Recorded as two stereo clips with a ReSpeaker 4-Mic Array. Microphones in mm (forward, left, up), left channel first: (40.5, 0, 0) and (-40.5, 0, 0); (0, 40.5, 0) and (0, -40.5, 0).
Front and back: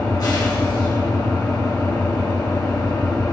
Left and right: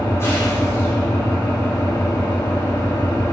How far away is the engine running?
About 2.0 m.